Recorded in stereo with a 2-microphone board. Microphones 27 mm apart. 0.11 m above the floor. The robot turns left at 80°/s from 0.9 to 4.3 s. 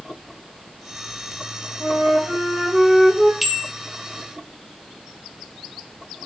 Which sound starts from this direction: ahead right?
A flute, at 1.8 s.